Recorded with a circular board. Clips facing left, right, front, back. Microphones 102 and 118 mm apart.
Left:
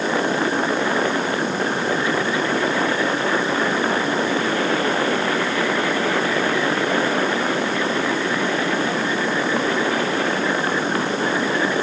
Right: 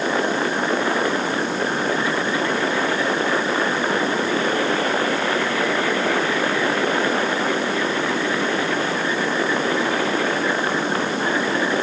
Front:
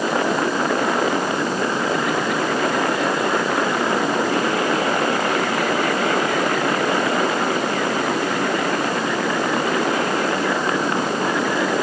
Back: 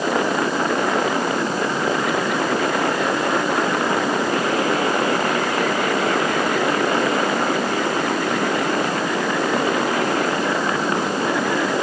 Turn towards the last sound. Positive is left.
No sound to turn to.